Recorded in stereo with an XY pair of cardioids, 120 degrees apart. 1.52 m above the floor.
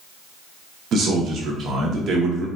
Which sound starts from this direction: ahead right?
A man speaking, at 0.9 s.